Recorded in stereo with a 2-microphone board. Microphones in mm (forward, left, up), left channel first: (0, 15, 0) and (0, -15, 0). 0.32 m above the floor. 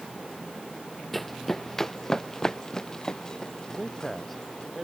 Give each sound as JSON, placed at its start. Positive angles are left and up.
{"t": 1.1, "sound": "running footsteps", "side_deg": 5}
{"t": 3.7, "sound": "a man speaking", "side_deg": 5}